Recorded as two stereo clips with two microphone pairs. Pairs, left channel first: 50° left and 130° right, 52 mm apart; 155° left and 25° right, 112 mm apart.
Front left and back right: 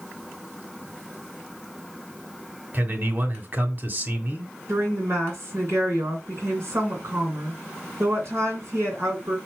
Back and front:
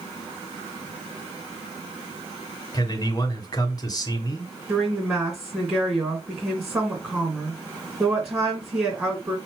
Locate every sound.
2.7 s a man speaking: 165° right, 1.8 m
4.7 s a woman speaking: 100° right, 3 m